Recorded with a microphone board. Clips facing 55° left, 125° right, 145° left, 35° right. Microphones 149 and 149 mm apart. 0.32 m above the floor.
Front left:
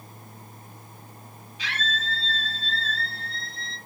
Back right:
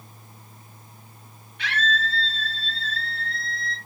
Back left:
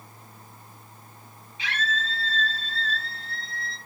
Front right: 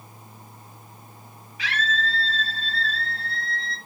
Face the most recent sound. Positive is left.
turn(degrees=-140)